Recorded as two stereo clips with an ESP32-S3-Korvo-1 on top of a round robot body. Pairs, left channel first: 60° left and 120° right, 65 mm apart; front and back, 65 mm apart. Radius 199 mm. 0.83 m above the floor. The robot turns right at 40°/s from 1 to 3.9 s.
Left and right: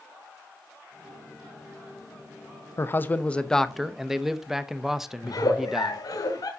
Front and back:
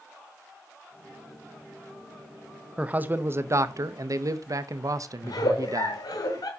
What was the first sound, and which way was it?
A man speaking, 110° left.